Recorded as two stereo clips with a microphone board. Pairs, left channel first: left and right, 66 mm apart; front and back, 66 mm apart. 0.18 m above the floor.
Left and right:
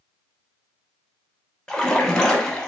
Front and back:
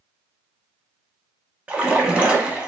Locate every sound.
1.7 s a splash: 150° left, 0.7 m